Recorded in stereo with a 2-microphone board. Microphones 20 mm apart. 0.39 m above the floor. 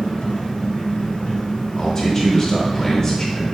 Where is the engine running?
75° left (ahead or behind), 1.1 m.